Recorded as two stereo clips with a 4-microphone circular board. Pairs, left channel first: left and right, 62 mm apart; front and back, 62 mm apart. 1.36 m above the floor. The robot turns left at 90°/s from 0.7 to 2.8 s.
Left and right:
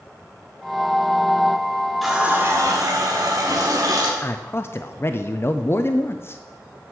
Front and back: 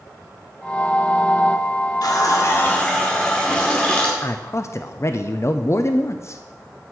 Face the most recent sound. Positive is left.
turn(degrees=40)